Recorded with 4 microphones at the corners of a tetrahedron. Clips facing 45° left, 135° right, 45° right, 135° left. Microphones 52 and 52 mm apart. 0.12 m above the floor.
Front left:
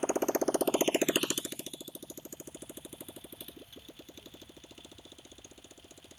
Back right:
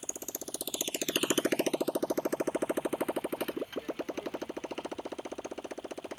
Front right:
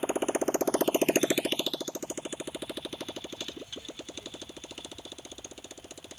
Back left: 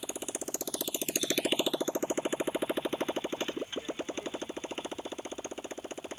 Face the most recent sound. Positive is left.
turn(degrees=-165)